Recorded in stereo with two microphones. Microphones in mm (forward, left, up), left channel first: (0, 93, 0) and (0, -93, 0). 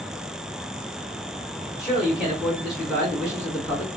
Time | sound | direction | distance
1.8 | a man speaking | 5° right (ahead or behind) | 1.7 m